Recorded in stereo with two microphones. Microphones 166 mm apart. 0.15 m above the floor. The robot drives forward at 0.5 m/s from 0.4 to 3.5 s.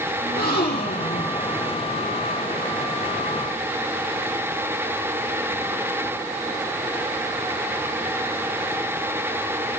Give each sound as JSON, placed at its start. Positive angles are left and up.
{"t": 0.2, "sound": "a gasp", "side_deg": 75, "distance_m": 5.5}